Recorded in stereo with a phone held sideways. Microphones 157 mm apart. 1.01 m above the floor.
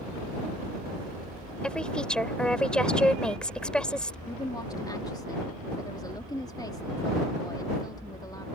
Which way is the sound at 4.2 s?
25° left (ahead or behind).